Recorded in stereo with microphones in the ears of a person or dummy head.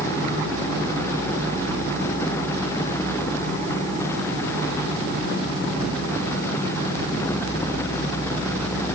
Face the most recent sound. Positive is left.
No sound to turn to.